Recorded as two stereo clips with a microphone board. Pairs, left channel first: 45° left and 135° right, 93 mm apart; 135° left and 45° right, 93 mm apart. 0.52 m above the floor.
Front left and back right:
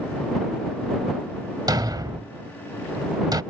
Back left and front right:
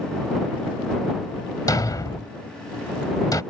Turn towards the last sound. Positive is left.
turn(degrees=180)